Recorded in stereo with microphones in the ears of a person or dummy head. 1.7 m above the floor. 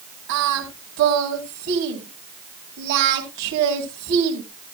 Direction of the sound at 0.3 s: 55° right (ahead or behind).